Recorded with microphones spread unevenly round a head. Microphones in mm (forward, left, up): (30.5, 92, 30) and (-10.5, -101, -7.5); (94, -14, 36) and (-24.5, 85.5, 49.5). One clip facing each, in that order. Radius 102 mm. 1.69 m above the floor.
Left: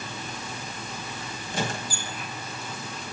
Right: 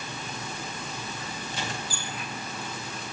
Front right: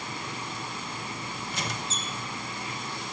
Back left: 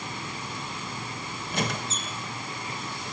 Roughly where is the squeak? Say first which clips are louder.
Left 7 dB, back left 7 dB; left.